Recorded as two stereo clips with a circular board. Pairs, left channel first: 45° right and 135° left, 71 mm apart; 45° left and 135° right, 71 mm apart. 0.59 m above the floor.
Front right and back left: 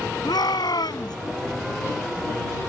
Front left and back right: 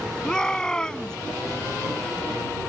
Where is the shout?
35° right.